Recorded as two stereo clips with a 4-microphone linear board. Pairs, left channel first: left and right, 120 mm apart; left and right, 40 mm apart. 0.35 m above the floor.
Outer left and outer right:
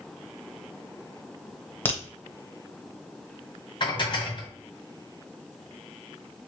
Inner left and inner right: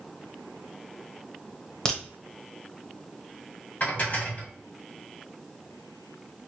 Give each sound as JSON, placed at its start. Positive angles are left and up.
{"t": 1.9, "sound": "a crack", "side_deg": 15, "distance_m": 1.1}
{"t": 3.8, "sound": "dishes clattering", "side_deg": 40, "distance_m": 1.6}